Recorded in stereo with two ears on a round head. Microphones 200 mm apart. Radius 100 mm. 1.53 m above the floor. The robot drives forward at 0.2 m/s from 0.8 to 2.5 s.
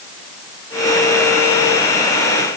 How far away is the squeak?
No squeak in this recording.